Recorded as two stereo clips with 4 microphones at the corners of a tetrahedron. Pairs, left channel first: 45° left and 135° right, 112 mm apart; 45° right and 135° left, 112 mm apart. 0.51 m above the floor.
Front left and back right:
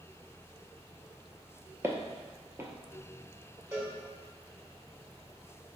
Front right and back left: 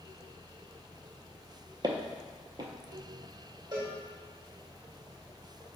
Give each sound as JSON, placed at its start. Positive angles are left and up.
{"t": 1.8, "sound": "footsteps", "azimuth_deg": 170, "distance_m": 0.6}
{"t": 3.7, "sound": "a cowbell", "azimuth_deg": 170, "distance_m": 1.1}